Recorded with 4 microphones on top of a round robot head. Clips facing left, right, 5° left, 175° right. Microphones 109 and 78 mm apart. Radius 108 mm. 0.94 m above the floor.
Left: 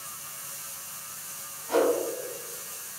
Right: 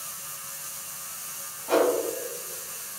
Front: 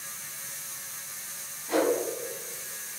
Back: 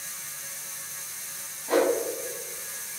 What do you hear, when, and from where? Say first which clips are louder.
1.7 s a whoosh: right 2 dB, back 3 dB; 120° right, 1.1 m